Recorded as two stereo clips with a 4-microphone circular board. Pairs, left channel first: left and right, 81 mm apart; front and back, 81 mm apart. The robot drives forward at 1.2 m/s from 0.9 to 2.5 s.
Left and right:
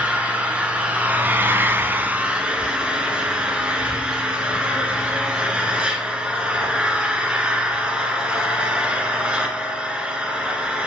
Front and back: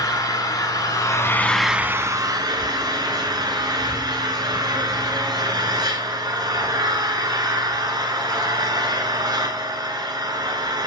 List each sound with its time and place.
0.0 s an engine running: 20° right, 1.1 m; by 10.9 s 165° right, 1.3 m